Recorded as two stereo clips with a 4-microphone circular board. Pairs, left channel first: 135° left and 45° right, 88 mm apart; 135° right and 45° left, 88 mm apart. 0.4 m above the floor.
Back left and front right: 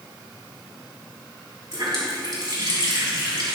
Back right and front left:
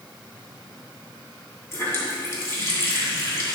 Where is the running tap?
75° right, 2.5 m.